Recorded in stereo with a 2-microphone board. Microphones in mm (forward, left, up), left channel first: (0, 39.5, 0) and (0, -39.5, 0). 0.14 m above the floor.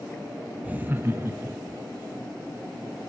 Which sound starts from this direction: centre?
Laughter, at 0.6 s.